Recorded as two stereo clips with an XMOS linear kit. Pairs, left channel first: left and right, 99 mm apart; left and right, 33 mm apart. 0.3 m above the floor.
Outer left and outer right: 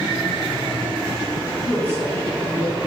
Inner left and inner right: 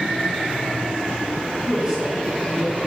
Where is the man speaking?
Centre (ahead or behind), 4 m; by 2.8 s 10° left (ahead or behind), 4 m.